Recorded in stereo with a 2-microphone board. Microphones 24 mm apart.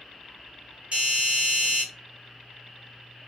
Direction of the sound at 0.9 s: 55° right (ahead or behind).